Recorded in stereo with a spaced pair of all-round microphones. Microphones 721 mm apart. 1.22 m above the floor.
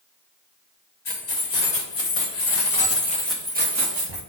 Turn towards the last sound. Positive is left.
turn(degrees=-40)  # may be behind; listen again after turning